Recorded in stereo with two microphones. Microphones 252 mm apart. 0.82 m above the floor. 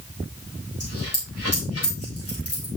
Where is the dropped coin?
70° left (ahead or behind), 6.5 m.